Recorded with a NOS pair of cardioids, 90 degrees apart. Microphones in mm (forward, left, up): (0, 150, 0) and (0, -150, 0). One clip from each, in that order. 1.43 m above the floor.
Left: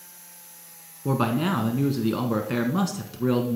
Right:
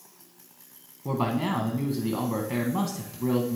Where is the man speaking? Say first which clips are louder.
Left 3 dB; 15° left, 1.0 m.